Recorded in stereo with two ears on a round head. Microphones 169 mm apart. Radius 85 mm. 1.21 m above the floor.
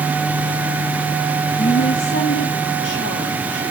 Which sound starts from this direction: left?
A woman speaking, at 1.6 s.